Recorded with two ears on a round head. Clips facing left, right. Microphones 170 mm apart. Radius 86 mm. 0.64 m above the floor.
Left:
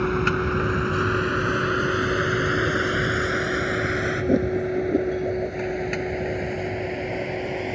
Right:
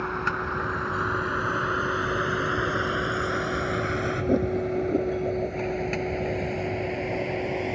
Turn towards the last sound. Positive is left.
turn(degrees=5)  # may be behind; listen again after turning